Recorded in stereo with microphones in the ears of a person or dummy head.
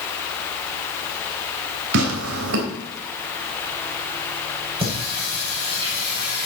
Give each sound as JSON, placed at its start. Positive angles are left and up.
{"t": 1.9, "sound": "tearing paper", "side_deg": -75, "distance_m": 3.0}
{"t": 4.8, "sound": "singing", "side_deg": -25, "distance_m": 7.5}